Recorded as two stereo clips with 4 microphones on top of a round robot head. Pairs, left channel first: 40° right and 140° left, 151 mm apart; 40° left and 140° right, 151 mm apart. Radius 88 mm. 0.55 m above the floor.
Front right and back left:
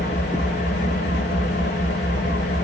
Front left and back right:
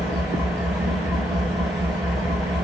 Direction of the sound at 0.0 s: 60° right.